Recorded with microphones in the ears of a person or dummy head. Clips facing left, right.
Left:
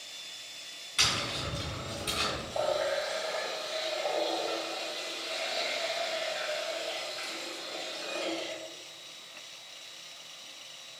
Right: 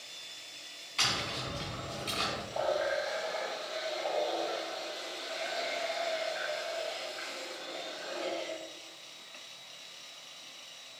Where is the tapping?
10° left (ahead or behind), 3 m.